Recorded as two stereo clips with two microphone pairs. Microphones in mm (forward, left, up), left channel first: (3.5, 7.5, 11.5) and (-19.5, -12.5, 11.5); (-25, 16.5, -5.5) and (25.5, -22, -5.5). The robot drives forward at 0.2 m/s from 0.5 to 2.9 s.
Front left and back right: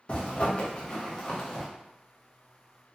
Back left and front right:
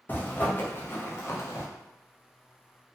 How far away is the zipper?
About 0.6 m.